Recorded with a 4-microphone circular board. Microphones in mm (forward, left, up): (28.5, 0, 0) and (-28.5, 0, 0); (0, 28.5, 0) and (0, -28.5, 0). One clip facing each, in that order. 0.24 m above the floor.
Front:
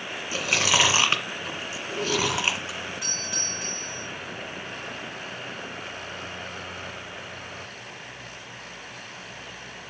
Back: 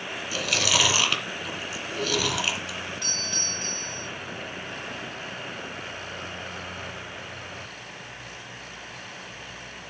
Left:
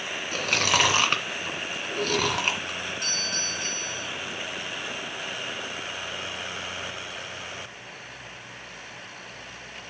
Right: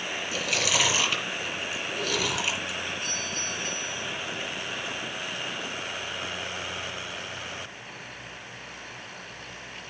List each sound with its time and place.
0.3 s chewing: 60° left, 2.5 m
3.0 s a doorbell: 80° left, 4 m